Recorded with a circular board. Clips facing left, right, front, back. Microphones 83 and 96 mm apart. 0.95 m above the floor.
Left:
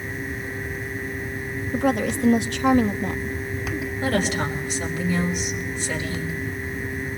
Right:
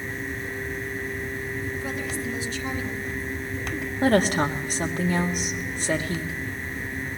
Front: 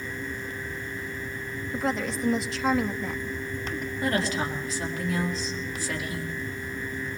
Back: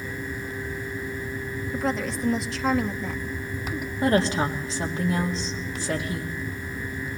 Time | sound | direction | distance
1.7 | a woman speaking | 90° left | 0.9 m
4.0 | a woman speaking | 125° right | 2 m